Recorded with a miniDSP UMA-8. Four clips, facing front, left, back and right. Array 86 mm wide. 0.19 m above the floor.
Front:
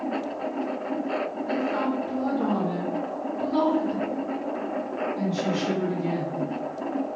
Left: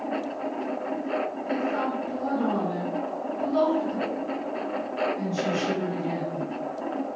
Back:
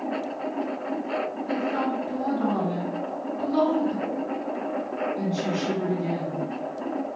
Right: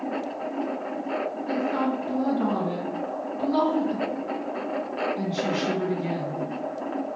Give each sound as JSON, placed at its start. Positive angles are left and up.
{"t": 1.5, "sound": "a woman speaking", "azimuth_deg": -95, "distance_m": 1.8}